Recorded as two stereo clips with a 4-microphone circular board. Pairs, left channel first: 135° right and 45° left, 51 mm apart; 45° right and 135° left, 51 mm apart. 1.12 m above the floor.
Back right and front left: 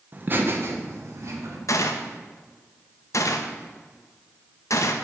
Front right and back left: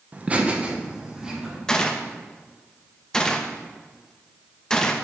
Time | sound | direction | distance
0.1 | laughter | 85° left | 0.8 m
1.7 | a gunshot | 125° right | 0.6 m